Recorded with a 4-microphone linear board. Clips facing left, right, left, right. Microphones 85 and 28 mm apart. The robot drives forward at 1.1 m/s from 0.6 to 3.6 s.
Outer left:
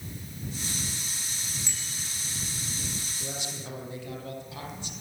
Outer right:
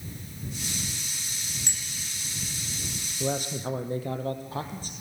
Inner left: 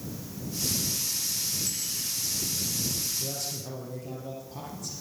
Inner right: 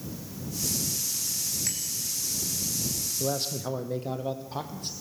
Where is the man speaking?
50° right (ahead or behind), 4 m; by 4.9 s 45° right (ahead or behind), 4 m.